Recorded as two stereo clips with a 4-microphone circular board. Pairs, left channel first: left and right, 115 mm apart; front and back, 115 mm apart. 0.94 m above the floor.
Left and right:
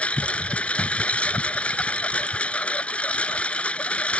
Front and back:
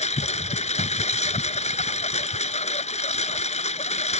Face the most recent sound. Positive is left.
turn(degrees=10)